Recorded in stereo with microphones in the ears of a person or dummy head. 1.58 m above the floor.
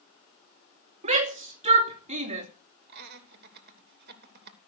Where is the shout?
45° right (ahead or behind), 2.5 m.